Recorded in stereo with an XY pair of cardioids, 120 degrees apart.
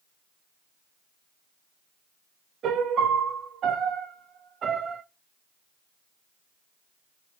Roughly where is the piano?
Ahead right.